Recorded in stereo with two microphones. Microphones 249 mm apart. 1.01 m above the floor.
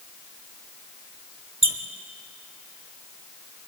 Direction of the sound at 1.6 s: 55° right (ahead or behind).